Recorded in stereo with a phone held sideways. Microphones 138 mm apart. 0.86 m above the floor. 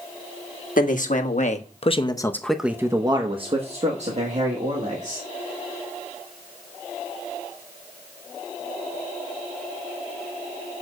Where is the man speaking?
70° left (ahead or behind), 1.3 m; by 5.2 s 60° right (ahead or behind), 2 m.